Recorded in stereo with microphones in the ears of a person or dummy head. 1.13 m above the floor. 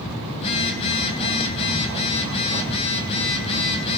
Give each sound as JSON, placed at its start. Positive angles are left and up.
{"t": 0.3, "sound": "a phone buzzing", "side_deg": 30, "distance_m": 3.5}